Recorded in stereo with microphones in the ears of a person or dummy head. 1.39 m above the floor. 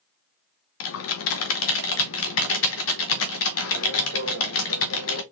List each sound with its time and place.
0.8 s typing on a keyboard: 65° left (ahead or behind), 0.7 m